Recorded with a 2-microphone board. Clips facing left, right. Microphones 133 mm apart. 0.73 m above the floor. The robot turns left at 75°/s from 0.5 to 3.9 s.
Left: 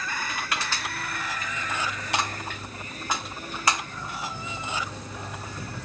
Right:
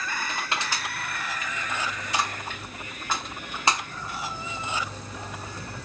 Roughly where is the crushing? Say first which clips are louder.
Right 1 dB; right.